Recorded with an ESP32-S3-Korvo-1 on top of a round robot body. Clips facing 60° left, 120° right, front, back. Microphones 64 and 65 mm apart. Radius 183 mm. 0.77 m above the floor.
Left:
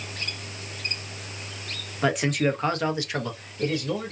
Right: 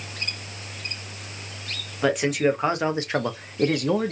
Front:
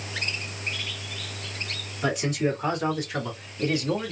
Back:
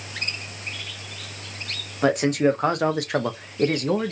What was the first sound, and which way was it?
A man speaking, 145° left.